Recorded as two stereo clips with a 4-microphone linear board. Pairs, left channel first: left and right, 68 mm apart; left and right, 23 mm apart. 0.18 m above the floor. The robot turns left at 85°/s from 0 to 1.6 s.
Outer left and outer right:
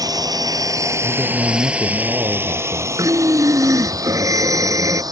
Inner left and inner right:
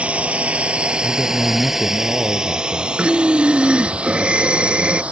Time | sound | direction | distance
0.0 | a drone | 65° right (ahead or behind) | ?
1.0 | a man speaking | 30° right | ?
3.0 | breathing | 55° right (ahead or behind) | ?